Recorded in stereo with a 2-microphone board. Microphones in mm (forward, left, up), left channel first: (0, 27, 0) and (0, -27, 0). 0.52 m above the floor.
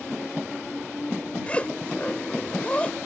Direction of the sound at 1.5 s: 20° left (ahead or behind).